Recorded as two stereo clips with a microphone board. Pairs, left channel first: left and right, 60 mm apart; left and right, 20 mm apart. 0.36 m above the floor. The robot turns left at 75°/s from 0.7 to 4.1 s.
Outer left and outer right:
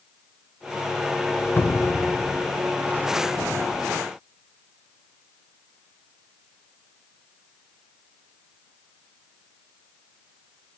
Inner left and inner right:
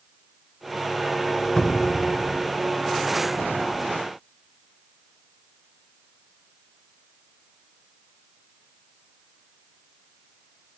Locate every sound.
1.6 s a cupboard door: 40° left (ahead or behind), 1.0 m; by 2.1 s 30° left (ahead or behind), 1.0 m